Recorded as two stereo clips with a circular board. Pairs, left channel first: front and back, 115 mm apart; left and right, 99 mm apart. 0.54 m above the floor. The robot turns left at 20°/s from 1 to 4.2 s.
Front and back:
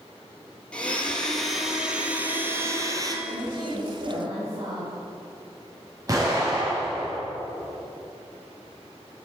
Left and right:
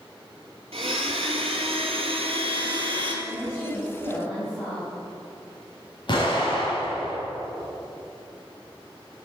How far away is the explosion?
About 4.5 m.